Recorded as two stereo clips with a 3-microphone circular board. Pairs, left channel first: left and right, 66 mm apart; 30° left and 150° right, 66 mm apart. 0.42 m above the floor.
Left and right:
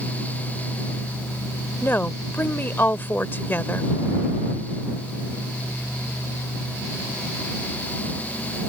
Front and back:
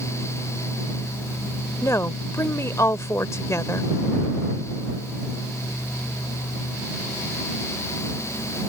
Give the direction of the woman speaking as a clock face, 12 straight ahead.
11 o'clock.